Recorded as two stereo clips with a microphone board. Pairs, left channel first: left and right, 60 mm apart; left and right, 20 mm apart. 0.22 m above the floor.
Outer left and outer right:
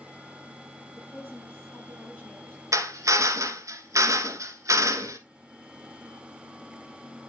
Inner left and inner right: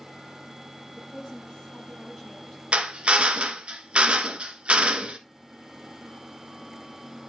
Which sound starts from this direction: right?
A drill, at 2.7 s.